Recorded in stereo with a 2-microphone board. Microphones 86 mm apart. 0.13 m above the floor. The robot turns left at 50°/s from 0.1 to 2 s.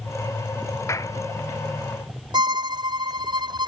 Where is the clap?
35° left (ahead or behind); by 1.2 s 45° left (ahead or behind).